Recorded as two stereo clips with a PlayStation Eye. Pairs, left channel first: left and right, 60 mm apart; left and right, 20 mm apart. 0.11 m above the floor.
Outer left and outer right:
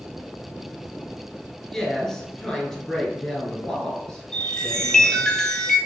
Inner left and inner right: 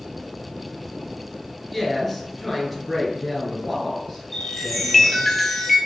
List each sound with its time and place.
1.7 s a woman speaking: 10° left (ahead or behind), 1.3 m
4.3 s a chime: 10° left (ahead or behind), 0.8 m